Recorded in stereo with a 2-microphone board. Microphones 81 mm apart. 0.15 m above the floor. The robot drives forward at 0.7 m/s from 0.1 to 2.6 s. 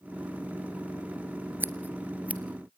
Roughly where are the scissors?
Right.